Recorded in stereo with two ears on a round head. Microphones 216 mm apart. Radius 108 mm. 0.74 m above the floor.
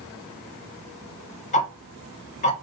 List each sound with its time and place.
1.5 s ticking: 30° left (ahead or behind), 0.8 m